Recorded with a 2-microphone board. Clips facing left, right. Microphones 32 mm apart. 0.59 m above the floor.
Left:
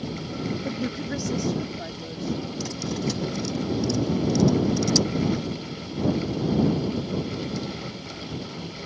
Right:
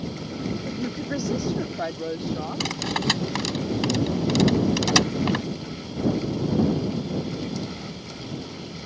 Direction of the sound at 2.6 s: 70° right (ahead or behind).